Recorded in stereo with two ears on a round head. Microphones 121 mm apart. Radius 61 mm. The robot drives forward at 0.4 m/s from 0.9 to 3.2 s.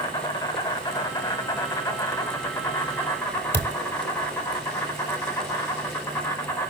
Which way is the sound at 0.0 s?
25° left (ahead or behind).